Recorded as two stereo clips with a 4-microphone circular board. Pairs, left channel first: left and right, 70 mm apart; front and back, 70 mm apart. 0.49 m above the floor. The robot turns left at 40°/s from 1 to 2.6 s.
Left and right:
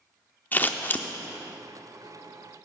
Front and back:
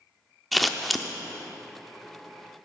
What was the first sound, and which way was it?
Scissors, 90° left.